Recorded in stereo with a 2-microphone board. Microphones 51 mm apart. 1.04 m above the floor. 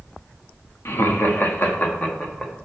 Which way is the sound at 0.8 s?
60° left (ahead or behind).